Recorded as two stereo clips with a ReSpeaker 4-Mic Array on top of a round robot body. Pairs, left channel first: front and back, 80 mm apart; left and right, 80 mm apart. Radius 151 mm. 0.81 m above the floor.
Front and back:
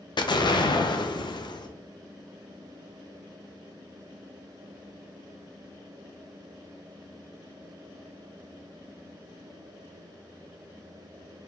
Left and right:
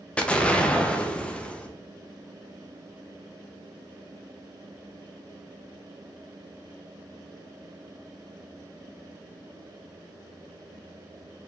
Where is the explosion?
15° left, 0.6 m.